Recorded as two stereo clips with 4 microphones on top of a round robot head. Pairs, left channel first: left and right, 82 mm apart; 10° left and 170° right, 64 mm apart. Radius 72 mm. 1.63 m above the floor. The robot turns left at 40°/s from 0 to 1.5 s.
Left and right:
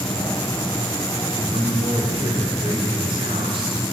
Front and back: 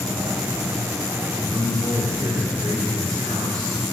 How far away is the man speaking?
About 5.5 m.